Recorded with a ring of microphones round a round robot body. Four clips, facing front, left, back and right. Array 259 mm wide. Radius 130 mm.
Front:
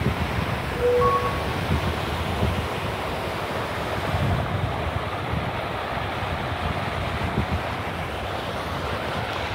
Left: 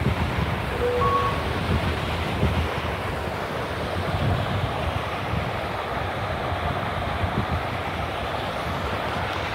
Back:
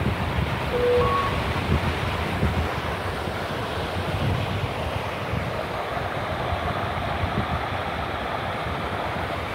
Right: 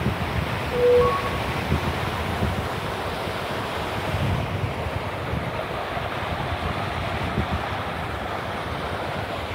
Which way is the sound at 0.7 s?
135° right.